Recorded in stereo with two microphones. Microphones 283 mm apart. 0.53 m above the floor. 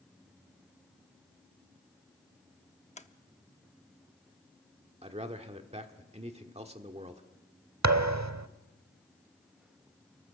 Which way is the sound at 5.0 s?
25° right (ahead or behind).